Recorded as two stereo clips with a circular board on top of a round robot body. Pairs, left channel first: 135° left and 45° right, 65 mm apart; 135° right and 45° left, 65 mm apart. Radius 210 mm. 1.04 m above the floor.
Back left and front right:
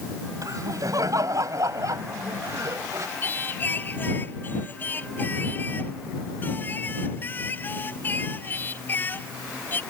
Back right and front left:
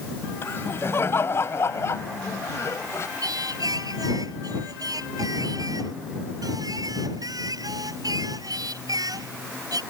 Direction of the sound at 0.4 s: 80° right.